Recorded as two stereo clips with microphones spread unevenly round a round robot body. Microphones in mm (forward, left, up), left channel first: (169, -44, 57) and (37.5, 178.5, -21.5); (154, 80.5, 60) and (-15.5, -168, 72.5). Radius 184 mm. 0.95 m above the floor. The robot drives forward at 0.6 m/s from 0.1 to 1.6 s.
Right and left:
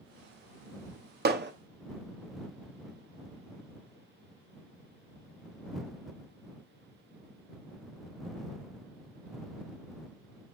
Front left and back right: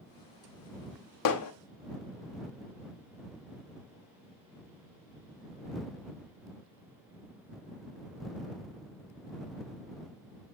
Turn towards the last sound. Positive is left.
turn(degrees=80)